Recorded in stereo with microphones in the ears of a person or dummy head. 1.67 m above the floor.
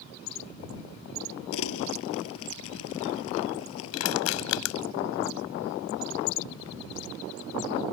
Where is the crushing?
75° left (ahead or behind).